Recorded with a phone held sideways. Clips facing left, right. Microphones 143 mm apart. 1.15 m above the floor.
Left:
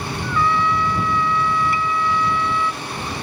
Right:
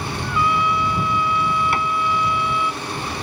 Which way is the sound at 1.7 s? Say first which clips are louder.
Even; 75° right (ahead or behind).